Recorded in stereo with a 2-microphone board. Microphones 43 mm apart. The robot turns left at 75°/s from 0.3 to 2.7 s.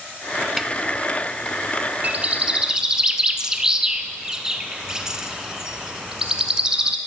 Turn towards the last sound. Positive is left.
turn(degrees=-15)  # may be behind; listen again after turning